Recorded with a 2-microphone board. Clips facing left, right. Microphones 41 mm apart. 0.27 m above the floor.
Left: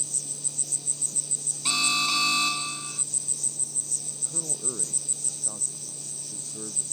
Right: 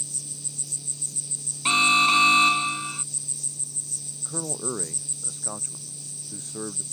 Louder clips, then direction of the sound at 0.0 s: Left 1 dB; 55° left (ahead or behind).